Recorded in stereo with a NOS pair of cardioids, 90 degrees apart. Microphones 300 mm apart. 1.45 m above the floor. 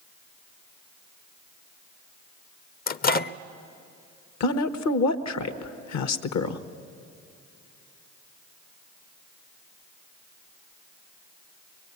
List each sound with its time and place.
2.9 s a microwave: 30° left, 0.5 m
4.4 s a woman speaking: 65° left, 1.2 m